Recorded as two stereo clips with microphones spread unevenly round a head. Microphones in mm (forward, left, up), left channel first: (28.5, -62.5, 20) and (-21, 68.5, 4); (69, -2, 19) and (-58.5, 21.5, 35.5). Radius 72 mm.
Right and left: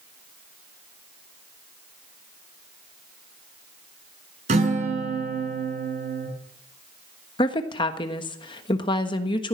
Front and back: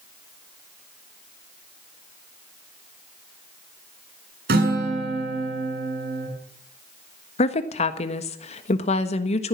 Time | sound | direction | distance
4.5 | a guitar | 160° left | 6 m
7.4 | a woman speaking | 10° right | 1.4 m